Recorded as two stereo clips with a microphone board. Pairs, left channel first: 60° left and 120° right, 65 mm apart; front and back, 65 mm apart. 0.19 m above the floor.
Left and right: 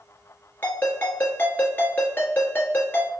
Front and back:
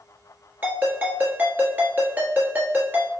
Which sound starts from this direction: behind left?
A ringtone, at 0.6 s.